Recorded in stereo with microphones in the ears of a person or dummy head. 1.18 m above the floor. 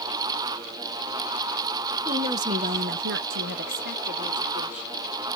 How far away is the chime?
I don't hear a chime.